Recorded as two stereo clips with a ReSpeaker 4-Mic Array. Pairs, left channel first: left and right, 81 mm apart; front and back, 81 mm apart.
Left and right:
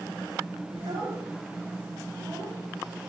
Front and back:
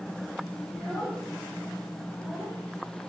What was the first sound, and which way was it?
A child speaking, 105° right.